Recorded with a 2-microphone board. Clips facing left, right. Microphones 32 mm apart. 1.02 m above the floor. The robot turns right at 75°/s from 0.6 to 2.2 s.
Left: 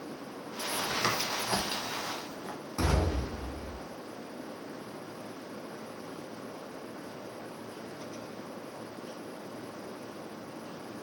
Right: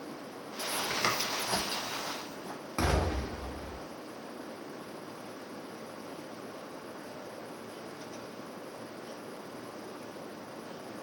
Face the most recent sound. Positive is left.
turn(degrees=-40)  # may be behind; listen again after turning